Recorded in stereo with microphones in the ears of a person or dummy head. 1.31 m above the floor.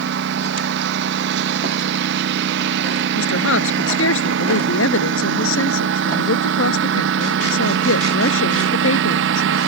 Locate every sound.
0.0 s a lawn mower: 70° right (ahead or behind); by 9.7 s 75° right (ahead or behind)
3.1 s a woman speaking: 85° left